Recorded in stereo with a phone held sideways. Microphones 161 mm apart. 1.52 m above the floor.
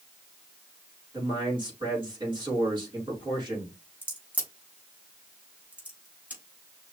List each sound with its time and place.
1.1 s a man speaking: 30° right (ahead or behind), 4.5 m
4.0 s a crack: 10° right (ahead or behind), 3.5 m